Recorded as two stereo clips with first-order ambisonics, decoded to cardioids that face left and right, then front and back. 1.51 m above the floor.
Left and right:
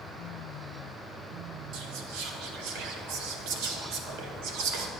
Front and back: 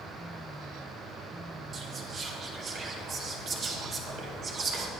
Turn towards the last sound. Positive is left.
turn(degrees=-115)